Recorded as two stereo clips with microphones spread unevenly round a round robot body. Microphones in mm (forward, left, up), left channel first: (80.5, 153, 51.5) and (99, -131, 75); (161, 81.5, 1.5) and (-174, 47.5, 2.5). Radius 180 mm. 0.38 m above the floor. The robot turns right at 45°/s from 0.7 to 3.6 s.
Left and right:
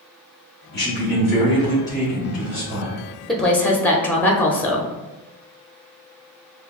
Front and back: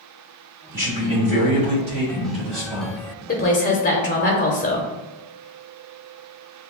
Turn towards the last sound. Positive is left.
turn(degrees=30)